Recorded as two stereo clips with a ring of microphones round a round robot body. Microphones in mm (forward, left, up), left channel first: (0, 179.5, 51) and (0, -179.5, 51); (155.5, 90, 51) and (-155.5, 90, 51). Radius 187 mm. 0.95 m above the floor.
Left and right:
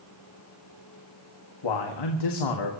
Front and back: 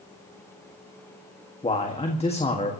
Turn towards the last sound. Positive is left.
turn(degrees=70)